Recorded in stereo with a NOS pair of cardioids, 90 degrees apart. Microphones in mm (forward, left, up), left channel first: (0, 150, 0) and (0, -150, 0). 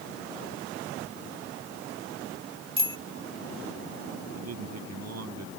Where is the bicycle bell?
15° right.